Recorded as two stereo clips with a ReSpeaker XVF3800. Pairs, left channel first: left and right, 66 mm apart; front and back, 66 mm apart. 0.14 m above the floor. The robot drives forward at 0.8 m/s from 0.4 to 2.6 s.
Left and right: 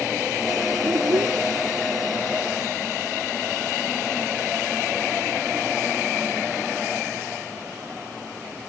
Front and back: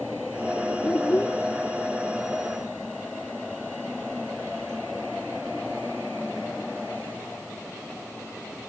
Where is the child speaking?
65° right.